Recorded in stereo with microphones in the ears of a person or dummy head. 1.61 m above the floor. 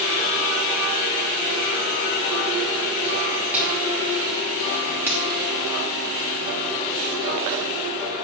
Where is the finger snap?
10° right (ahead or behind), 3 m.